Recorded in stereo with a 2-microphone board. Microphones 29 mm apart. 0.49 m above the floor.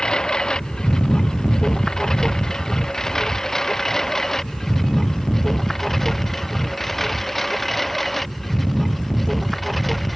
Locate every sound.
0.0 s a lawn mower: 30° left (ahead or behind); by 10.2 s 5° left (ahead or behind)